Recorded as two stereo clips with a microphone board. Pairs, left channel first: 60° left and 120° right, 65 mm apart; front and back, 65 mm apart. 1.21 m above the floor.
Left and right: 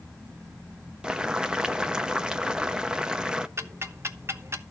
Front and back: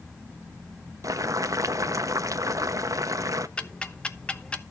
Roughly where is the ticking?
Right.